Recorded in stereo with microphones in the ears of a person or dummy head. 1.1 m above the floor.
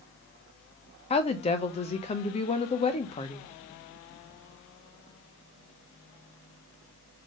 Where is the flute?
I don't hear a flute.